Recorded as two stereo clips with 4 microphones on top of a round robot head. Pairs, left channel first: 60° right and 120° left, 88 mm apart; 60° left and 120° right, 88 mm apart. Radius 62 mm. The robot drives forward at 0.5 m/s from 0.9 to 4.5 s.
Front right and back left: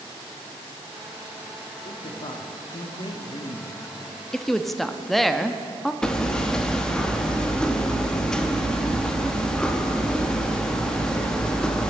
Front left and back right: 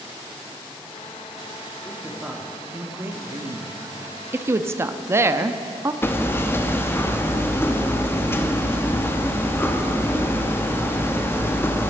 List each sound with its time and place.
1.8 s a man speaking: 40° right, 1.4 m; by 4.2 s 110° right, 1.1 m
4.3 s a woman speaking: 135° right, 0.6 m; by 5.9 s 145° right, 0.6 m
6.0 s hammering: 20° left, 1.0 m